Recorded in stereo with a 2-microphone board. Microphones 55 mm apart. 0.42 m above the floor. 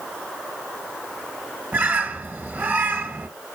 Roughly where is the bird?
Right.